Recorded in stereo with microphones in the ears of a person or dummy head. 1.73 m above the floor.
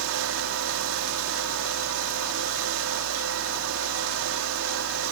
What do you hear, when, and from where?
0.0 s a fan: 75° right (ahead or behind)